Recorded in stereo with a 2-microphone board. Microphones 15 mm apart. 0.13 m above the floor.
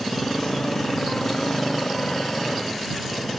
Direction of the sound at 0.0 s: 35° left (ahead or behind).